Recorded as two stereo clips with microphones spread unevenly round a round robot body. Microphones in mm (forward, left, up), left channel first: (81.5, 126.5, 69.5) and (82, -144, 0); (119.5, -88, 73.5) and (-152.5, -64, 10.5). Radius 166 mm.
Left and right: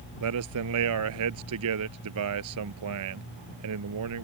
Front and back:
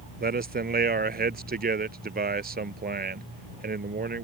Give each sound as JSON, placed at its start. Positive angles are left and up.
{"t": 0.2, "sound": "a man speaking", "azimuth_deg": -130}